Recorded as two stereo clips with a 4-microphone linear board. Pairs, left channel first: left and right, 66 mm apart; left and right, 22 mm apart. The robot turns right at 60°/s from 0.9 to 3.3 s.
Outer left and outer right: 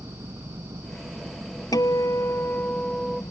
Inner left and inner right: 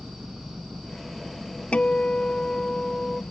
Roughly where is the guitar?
Left.